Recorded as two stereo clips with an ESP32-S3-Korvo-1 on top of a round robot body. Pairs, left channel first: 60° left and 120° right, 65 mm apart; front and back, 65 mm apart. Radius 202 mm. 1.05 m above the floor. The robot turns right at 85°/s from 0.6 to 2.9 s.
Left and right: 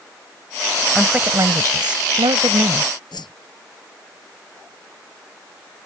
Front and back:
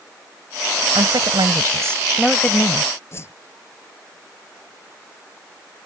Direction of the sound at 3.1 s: 55° left.